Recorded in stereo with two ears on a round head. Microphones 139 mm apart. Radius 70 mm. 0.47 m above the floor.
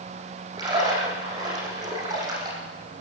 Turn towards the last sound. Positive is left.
turn(degrees=-25)  # may be behind; listen again after turning